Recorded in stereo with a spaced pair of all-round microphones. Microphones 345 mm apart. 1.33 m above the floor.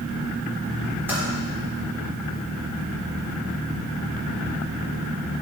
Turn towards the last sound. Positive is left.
turn(degrees=-5)  # may be behind; listen again after turning